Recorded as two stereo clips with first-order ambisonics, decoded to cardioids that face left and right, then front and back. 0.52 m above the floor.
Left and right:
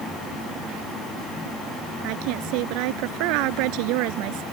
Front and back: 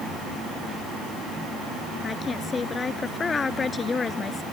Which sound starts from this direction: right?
A woman speaking, at 2.0 s.